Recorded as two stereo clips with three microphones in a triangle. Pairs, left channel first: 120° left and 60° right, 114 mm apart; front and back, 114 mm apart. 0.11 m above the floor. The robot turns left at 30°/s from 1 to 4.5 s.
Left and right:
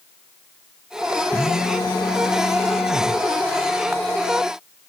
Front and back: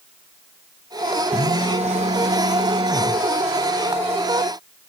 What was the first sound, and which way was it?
A phone buzzing, 170° right.